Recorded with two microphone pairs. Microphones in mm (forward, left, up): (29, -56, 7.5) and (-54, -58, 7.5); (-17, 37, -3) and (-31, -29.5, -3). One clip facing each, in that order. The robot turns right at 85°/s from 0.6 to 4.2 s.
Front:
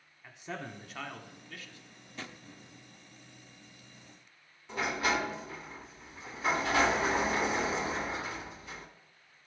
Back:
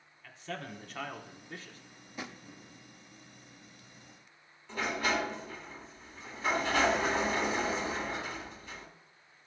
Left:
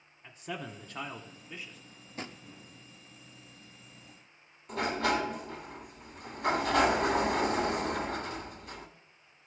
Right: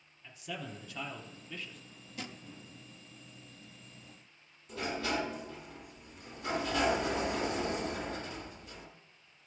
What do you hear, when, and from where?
0.2 s a man speaking: 65° left, 1.1 m; by 1.8 s 165° left, 1.1 m
2.2 s a drawer: 115° left, 0.5 m; by 2.4 s 135° left, 0.5 m
4.7 s a sliding door: 85° left, 1.0 m